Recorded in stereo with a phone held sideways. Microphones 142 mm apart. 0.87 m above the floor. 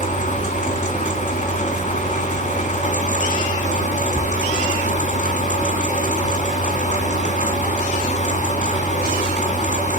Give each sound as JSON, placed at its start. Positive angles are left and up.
{"t": 0.0, "sound": "a fan", "side_deg": 60, "distance_m": 2.5}